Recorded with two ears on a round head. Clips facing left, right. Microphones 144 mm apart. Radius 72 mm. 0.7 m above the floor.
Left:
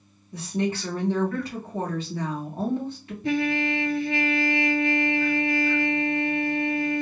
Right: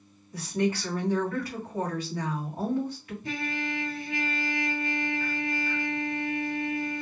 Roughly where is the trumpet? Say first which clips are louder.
Left 9 dB; left.